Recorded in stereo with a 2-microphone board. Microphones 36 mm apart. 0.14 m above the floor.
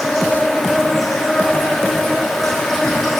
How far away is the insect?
About 8 m.